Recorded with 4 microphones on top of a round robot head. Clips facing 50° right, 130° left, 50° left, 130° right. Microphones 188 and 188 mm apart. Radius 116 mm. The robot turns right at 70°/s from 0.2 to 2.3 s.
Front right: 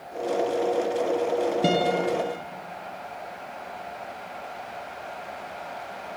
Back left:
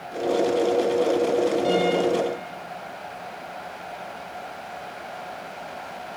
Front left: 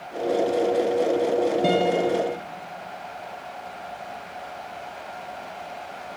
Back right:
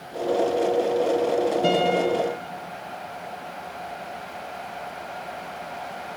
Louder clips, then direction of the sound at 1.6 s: Back left 2 dB, even; 30° right.